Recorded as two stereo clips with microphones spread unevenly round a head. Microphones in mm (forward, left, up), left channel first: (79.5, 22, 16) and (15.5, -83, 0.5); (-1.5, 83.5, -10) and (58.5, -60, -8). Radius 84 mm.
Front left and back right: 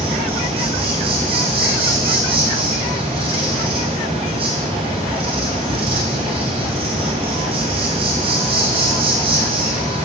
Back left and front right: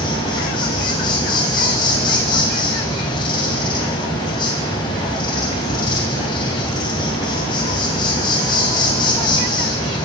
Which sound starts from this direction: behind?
An insect, at 0.0 s.